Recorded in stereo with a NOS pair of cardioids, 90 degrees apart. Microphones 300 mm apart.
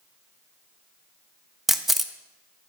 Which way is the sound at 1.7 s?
Straight ahead.